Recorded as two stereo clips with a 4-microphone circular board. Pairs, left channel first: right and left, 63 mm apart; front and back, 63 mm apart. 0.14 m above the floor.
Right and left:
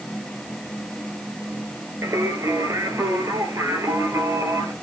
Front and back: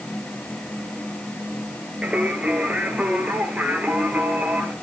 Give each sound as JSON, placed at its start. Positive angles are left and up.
{"t": 2.0, "sound": "singing", "azimuth_deg": 115, "distance_m": 1.6}